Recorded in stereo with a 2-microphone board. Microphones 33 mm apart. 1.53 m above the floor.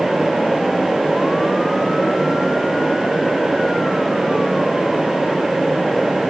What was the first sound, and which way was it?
Only background noise.